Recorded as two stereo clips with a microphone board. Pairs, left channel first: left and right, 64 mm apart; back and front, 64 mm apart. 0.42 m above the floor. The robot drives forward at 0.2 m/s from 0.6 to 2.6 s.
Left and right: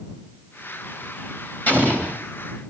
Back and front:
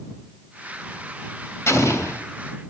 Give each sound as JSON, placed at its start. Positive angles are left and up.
{"t": 1.7, "sound": "an explosion", "azimuth_deg": 145, "distance_m": 2.5}